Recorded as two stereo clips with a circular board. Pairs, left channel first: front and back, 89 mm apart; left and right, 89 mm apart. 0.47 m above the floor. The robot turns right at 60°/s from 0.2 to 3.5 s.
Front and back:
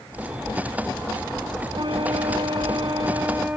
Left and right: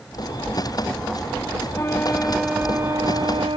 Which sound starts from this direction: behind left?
A flute, at 1.7 s.